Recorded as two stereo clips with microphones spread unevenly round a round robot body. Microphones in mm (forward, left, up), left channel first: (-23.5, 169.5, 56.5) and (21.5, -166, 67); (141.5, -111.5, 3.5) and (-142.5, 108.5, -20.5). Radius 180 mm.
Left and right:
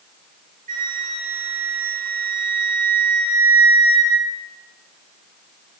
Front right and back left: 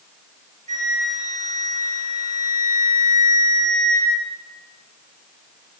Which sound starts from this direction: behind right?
A flute, at 0.7 s.